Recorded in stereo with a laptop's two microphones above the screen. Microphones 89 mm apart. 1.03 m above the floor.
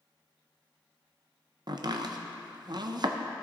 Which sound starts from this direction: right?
Chopping, at 1.7 s.